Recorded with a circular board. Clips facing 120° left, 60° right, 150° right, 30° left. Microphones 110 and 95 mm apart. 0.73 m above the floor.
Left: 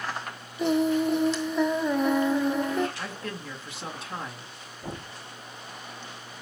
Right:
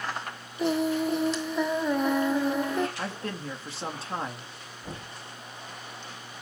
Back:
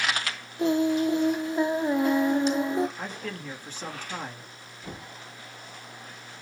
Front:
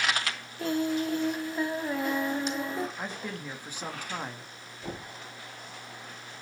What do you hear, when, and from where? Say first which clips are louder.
0.6 s singing: left 2 dB, back 5 dB; 150° right, 0.6 m
3.0 s a man speaking: right 2 dB, back 1 dB; 35° right, 1.3 m
4.8 s knocking: left 3 dB, front 2 dB; 80° left, 3 m